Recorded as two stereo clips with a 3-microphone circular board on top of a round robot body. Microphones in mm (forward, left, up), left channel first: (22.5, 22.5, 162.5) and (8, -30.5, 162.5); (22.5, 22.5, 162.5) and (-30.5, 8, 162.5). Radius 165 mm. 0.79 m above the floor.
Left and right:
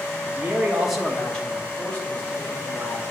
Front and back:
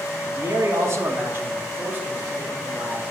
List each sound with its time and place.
0.3 s a man speaking: 155° right, 1.3 m; by 3.1 s 130° left, 3.5 m